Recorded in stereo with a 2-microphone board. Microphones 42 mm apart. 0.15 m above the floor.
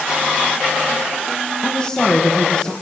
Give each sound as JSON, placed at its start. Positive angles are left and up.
{"t": 1.6, "sound": "a woman speaking", "side_deg": 15, "distance_m": 6.0}